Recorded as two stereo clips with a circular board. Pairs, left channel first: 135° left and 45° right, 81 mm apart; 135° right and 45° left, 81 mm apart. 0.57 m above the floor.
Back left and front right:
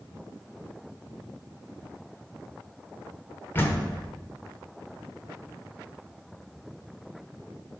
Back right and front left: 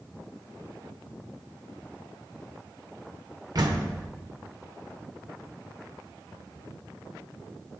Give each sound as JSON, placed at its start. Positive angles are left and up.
{"t": 3.5, "sound": "a door slam", "azimuth_deg": 75, "distance_m": 1.0}